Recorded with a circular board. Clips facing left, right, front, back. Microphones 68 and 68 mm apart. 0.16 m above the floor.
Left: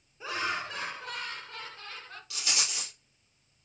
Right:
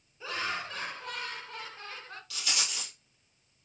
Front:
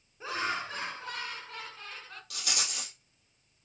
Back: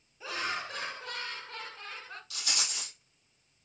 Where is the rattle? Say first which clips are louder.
Even, front 2 dB; 20° left, 2 m.